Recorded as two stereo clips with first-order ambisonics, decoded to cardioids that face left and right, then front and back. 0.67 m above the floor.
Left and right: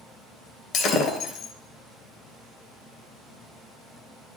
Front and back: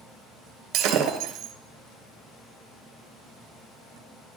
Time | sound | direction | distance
0.7 | breaking glass | 140° left | 2.5 m